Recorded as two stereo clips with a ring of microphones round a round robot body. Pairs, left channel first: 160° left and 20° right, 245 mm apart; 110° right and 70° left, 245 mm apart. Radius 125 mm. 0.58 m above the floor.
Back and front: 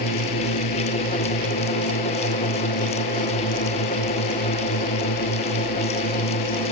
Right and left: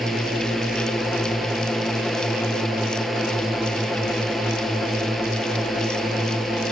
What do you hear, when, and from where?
0.0 s a drone: 155° left